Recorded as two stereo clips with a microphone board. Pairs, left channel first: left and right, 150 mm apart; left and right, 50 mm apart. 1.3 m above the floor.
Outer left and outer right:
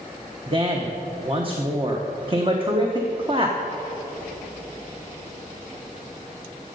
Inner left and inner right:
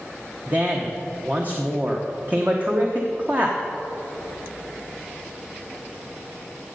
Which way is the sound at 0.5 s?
35° right (ahead or behind).